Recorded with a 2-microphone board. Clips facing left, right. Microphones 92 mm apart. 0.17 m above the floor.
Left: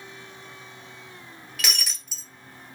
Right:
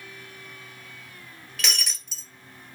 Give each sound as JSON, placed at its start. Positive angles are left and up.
{"t": 1.6, "sound": "breaking glass", "side_deg": 5, "distance_m": 0.9}